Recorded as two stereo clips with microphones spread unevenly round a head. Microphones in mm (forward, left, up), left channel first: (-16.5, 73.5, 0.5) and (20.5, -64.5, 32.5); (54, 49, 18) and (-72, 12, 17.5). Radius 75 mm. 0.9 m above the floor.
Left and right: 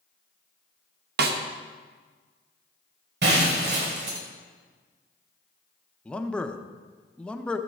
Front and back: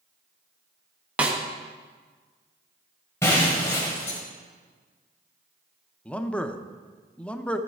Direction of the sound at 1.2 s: 85° right.